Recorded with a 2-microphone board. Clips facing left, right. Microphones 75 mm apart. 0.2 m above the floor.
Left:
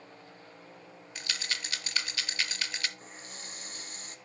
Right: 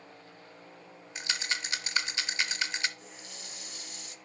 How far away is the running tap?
About 1.0 m.